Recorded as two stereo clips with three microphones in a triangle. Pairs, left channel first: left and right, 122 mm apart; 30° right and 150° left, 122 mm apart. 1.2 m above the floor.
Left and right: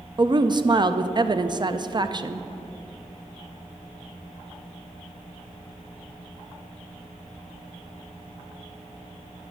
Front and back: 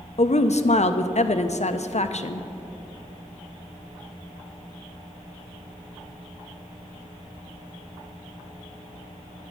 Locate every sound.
0.2 s a woman speaking: 40° right, 0.5 m